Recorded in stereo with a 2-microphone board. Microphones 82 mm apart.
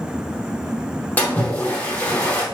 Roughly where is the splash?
Centre.